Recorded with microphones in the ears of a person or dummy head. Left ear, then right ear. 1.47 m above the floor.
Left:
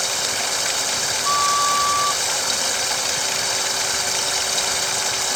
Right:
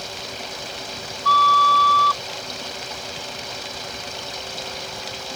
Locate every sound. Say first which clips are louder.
0.0 s running water: left 9 dB; 60° left (ahead or behind)
1.2 s a flute: right 6 dB; 30° right (ahead or behind)